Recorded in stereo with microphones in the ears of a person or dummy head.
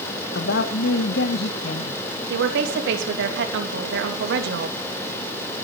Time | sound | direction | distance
0.3 | a woman speaking | 70° left (ahead or behind) | 1.6 m
2.3 | a woman speaking | 75° right (ahead or behind) | 3 m